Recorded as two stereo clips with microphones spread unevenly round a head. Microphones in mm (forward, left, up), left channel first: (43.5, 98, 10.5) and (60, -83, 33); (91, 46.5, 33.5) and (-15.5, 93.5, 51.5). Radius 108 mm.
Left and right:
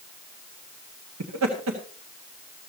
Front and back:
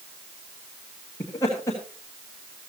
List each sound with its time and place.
1.2 s laughter: 90° right, 1.7 m